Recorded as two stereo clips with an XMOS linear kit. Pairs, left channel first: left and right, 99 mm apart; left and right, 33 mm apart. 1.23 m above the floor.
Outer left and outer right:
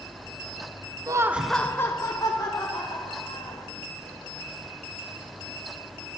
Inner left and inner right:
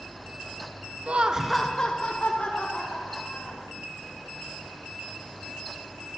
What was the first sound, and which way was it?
Laughter, 35° right (ahead or behind).